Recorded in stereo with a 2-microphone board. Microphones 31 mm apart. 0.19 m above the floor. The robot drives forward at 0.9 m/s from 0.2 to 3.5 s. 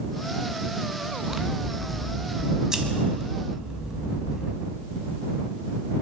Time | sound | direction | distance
1.3 | scissors | 10° right (ahead or behind) | 2 m